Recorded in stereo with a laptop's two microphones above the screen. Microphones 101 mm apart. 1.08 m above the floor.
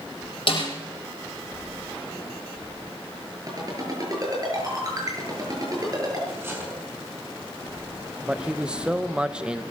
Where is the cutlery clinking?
20° right (ahead or behind), 6 m.